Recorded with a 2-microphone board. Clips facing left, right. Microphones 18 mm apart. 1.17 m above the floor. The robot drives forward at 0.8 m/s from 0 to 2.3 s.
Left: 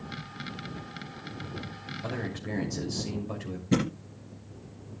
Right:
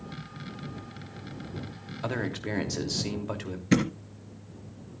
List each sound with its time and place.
2.0 s a man speaking: 70° right (ahead or behind), 3 m; by 3.6 s 65° right (ahead or behind), 3 m
3.7 s a thud: 50° right (ahead or behind), 3.5 m